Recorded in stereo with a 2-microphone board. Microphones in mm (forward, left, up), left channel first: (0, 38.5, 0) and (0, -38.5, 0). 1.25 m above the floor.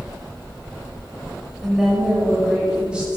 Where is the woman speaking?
Centre (ahead or behind), 6.5 m; by 3.2 s 15° right (ahead or behind), 7.5 m.